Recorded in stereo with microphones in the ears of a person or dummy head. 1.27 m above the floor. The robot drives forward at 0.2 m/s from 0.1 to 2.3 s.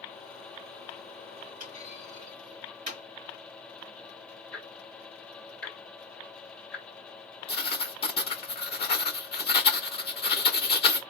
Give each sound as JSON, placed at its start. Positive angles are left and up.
{"t": 1.6, "sound": "a clunk", "side_deg": -45, "distance_m": 2.0}
{"t": 4.5, "sound": "ticking", "side_deg": 5, "distance_m": 0.7}
{"t": 7.5, "sound": "writing", "side_deg": 25, "distance_m": 0.6}